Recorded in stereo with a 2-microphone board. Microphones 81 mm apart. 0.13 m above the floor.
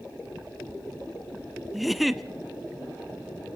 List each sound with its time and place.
1.7 s a giggle: centre (ahead or behind), 0.6 m